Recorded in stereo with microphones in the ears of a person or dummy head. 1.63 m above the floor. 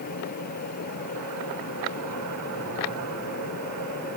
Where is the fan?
50° left (ahead or behind).